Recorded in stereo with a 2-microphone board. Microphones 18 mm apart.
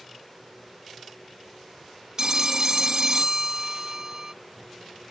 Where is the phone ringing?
35° right (ahead or behind).